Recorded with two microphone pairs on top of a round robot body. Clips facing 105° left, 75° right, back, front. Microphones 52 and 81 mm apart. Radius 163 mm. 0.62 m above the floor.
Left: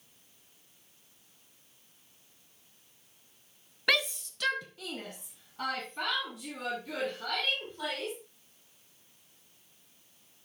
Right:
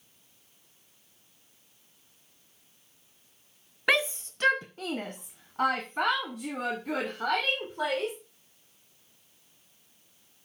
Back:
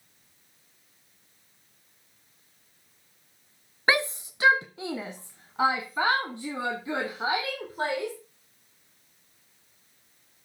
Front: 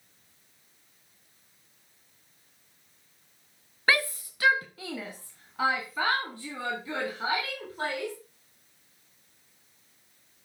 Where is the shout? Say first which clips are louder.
Right 3 dB, back 1 dB; 115° right, 0.6 m; by 8.1 s 110° right, 3 m.